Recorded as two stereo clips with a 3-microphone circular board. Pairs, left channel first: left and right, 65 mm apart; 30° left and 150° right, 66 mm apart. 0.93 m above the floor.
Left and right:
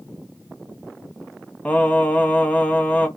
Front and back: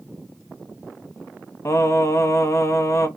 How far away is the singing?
About 1.1 m.